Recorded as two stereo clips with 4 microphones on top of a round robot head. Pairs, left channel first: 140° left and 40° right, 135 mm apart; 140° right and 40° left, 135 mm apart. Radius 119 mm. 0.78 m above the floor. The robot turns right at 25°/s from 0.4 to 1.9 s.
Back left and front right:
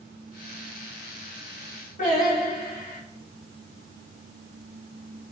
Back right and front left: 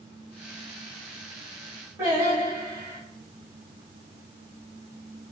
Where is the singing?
115° left, 1.4 m.